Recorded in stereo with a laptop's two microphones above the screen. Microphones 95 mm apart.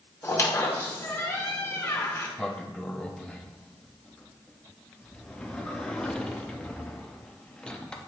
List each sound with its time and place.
0.2 s a squeak: 25° left (ahead or behind), 0.8 m
2.4 s a sliding door: 10° left (ahead or behind), 0.7 m